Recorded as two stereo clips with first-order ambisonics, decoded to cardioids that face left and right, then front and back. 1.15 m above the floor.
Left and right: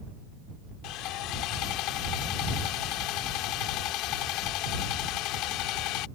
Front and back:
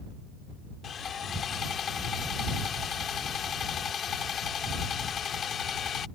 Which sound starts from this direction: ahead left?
Sawing, at 0.8 s.